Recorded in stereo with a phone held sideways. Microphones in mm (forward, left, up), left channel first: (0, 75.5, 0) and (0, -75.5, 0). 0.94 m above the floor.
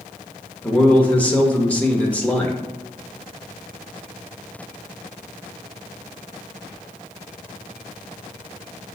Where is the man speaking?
10° left (ahead or behind), 0.7 m.